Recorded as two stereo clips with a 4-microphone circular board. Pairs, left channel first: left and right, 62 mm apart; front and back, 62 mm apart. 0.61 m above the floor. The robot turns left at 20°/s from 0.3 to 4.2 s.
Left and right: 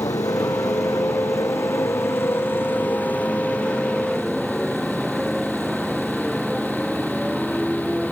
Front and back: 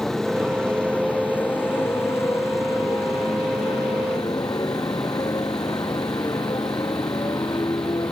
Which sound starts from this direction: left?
A motorcycle, at 0.0 s.